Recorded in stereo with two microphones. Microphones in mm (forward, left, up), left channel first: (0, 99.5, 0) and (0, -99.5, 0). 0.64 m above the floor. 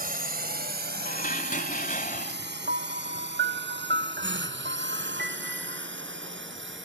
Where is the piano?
55° right (ahead or behind).